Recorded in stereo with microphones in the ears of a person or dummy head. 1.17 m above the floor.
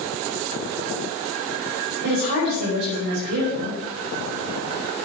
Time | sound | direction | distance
2.0 | a woman speaking | 55° right (ahead or behind) | 5 m